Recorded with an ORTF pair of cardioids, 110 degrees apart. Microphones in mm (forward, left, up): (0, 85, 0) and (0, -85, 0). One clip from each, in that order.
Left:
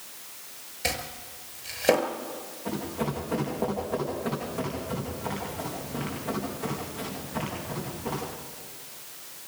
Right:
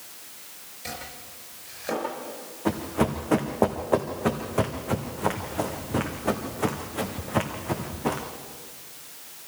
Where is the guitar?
No guitar in this recording.